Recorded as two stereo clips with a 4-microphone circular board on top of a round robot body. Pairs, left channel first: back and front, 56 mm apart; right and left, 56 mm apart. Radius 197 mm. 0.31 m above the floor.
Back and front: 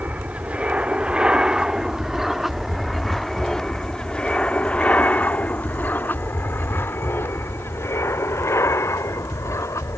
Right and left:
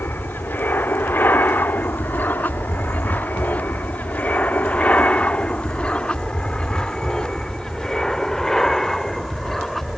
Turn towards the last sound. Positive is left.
turn(degrees=-175)